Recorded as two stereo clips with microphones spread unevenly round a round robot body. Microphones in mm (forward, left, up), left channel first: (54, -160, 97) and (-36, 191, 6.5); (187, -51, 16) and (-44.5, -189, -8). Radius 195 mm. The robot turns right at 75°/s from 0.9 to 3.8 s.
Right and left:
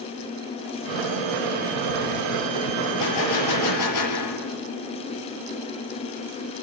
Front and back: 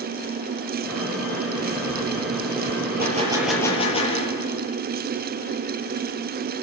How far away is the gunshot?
About 7.5 m.